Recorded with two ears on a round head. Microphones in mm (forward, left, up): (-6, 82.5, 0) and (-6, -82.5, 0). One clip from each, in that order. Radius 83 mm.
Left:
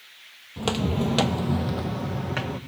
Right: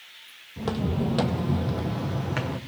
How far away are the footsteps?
About 0.8 m.